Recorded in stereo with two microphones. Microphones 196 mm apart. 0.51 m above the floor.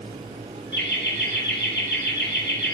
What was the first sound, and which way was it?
Laughter, 70° left (ahead or behind).